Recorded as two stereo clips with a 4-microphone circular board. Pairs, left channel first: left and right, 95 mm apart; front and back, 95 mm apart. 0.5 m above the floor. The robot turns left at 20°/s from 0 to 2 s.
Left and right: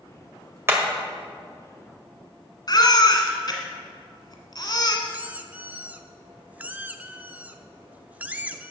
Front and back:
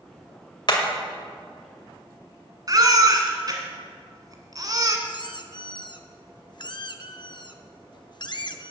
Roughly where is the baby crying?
Behind left.